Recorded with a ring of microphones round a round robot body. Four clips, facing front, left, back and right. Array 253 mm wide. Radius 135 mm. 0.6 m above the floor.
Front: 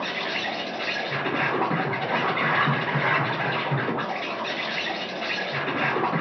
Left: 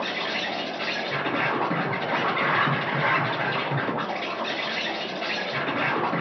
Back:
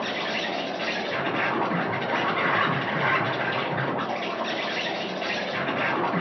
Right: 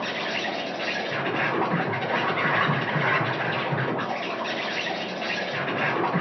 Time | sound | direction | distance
0.0 | an insect | 50° left | 2 m